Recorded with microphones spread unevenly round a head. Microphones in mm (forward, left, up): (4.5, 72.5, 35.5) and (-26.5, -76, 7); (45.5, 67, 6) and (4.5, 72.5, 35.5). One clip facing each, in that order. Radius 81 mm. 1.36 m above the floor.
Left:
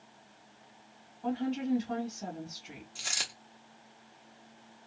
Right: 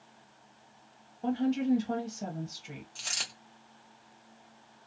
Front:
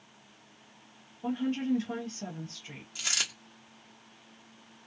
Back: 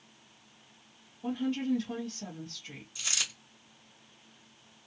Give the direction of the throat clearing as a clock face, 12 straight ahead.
I don't hear throat clearing.